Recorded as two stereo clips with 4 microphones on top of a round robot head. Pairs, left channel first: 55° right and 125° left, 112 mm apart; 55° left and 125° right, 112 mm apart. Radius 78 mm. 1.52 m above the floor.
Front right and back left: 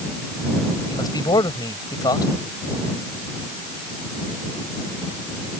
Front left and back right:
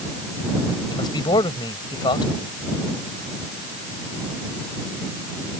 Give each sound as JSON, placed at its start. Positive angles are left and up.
{"t": 0.9, "sound": "a man speaking", "azimuth_deg": 0}